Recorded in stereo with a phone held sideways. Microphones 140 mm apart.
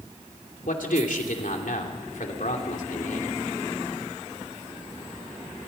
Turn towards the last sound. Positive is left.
turn(degrees=85)